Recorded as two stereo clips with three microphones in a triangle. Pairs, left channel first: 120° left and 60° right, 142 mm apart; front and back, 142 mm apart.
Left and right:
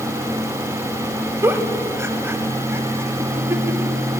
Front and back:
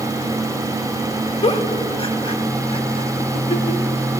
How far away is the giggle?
About 0.7 m.